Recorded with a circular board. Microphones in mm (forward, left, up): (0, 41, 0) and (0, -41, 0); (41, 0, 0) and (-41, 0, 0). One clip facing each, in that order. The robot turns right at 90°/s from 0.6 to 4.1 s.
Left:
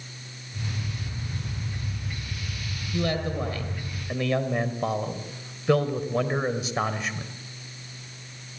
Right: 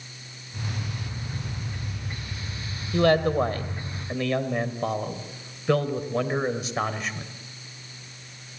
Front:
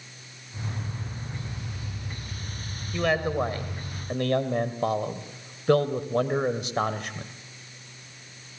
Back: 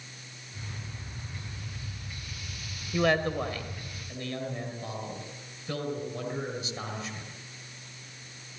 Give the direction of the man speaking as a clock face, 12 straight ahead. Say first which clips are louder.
Right 8 dB, front 1 dB; 3 o'clock.